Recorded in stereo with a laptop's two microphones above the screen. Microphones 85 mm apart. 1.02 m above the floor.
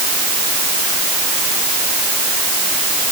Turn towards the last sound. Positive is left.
No sound to turn to.